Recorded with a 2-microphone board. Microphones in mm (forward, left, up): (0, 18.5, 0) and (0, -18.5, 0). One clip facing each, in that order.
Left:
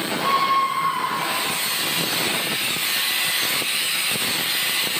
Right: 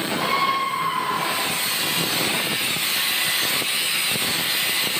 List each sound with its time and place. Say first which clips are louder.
0.2 s a scream: left 3 dB; 30° right (ahead or behind), 3.5 m